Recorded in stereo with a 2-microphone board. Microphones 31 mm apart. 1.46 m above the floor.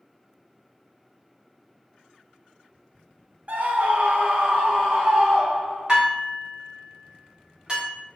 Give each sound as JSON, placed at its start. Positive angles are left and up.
{"t": 3.5, "sound": "a scream", "side_deg": -55, "distance_m": 0.5}
{"t": 5.9, "sound": "dishes clattering", "side_deg": -30, "distance_m": 1.1}